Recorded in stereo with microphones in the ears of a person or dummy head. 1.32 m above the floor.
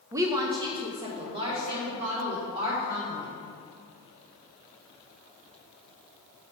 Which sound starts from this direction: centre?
A woman speaking, at 0.1 s.